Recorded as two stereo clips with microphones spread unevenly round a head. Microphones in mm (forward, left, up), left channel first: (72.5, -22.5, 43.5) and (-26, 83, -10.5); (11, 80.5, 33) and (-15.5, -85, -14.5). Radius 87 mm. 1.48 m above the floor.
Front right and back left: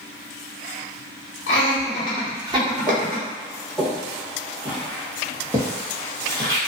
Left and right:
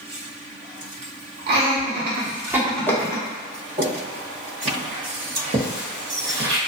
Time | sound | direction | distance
1.5 | laughter | 80° right | 1.1 m
2.9 | footsteps | 10° right | 1.7 m